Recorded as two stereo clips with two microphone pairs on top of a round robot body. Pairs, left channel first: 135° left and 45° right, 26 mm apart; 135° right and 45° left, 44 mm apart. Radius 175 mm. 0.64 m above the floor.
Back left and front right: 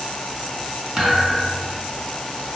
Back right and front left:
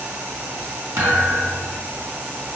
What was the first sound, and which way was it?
A thud, 35° left.